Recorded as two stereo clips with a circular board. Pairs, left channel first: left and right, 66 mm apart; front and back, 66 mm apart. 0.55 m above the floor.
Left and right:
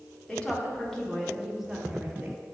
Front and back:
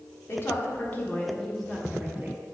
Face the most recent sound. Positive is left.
turn(degrees=-145)